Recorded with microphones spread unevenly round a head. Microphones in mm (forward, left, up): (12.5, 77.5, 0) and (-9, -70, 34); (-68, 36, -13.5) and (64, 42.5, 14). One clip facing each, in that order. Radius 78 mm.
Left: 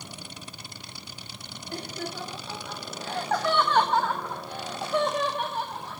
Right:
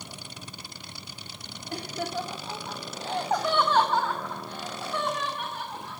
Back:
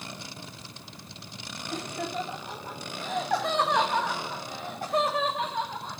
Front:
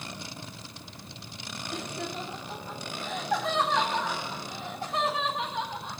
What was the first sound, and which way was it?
Laughter, 130° right.